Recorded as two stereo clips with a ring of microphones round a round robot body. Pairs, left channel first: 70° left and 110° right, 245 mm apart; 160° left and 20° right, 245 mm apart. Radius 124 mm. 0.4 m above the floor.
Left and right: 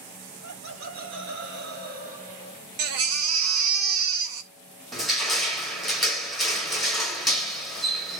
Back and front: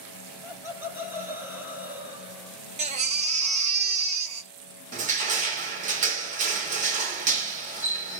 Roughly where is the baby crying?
Right.